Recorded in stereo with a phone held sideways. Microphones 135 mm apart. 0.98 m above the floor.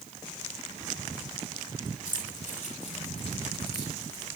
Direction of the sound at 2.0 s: 75° left (ahead or behind).